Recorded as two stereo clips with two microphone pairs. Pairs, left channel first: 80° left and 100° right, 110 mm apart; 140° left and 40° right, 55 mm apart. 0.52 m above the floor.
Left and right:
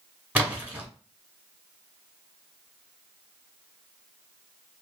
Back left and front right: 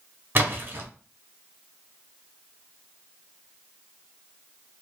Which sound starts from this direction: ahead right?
A splash, at 0.3 s.